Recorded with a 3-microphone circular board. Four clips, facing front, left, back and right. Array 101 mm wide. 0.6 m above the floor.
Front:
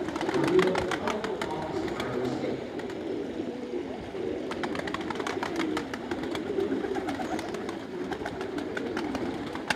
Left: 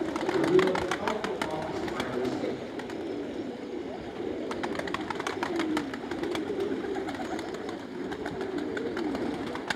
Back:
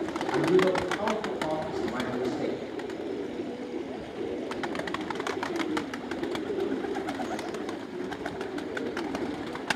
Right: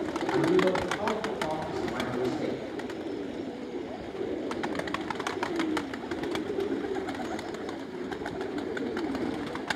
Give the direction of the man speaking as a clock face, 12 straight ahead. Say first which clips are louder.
Left 1 dB, back 1 dB; 5 o'clock.